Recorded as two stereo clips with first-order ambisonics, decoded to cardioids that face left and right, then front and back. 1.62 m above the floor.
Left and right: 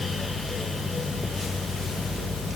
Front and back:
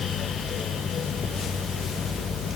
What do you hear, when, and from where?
Only background noise.